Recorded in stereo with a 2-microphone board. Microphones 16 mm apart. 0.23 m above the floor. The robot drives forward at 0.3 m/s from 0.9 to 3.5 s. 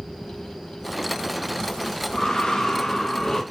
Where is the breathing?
60° left (ahead or behind), 0.8 m; by 3.4 s 40° left (ahead or behind), 1.0 m.